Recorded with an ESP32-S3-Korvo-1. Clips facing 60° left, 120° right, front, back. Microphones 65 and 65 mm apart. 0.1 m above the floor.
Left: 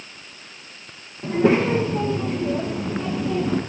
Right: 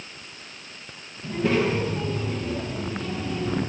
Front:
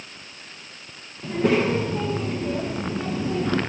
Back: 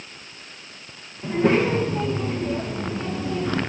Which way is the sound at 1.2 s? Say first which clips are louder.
Left 5 dB, back 1 dB; 95° left.